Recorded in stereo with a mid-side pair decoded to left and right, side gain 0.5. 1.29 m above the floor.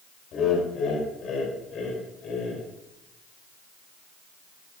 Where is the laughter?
60° left, 5.5 m.